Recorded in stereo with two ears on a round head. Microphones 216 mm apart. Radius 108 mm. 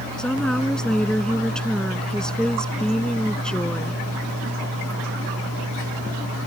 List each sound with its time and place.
0.2 s a woman speaking: 5° left (ahead or behind)